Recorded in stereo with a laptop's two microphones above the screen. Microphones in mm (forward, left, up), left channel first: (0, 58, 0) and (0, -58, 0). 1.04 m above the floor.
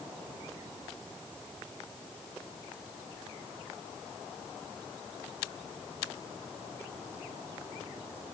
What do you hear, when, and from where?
Only background noise.